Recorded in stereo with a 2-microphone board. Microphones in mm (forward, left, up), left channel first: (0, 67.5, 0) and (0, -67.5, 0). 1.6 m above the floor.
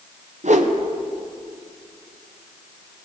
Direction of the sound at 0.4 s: 60° right (ahead or behind).